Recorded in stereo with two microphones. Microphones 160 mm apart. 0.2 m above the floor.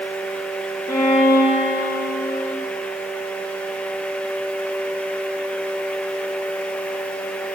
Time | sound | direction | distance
0.9 | a violin | 20° left (ahead or behind) | 8 m